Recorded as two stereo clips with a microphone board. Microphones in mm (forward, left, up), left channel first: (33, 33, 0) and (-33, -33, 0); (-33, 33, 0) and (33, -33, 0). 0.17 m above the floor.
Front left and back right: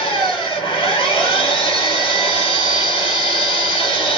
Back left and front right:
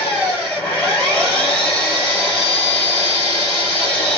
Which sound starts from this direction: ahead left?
An engine running, at 0.0 s.